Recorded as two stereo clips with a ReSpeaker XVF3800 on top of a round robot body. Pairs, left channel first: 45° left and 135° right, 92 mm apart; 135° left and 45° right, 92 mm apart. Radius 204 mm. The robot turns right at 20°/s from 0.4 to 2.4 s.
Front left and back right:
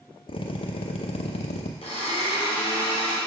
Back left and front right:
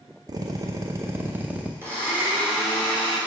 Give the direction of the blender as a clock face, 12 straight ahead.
11 o'clock.